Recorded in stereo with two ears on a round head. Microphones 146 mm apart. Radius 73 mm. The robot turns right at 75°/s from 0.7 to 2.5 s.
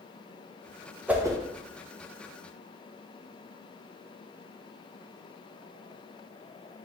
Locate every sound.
1.1 s a whoosh: 10° right (ahead or behind), 0.5 m; by 1.4 s 25° right (ahead or behind), 0.5 m